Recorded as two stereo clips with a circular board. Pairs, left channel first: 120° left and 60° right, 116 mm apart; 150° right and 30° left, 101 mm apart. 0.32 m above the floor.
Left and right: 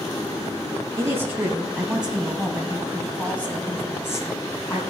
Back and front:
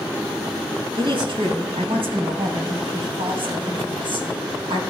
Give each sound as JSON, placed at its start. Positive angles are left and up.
{"t": 1.0, "sound": "a woman speaking", "azimuth_deg": 5, "distance_m": 2.5}